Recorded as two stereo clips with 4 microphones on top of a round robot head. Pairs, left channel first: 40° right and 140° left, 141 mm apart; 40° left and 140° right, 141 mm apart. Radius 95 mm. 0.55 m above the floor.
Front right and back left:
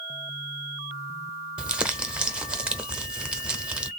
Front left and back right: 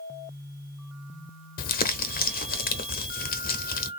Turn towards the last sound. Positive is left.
turn(degrees=55)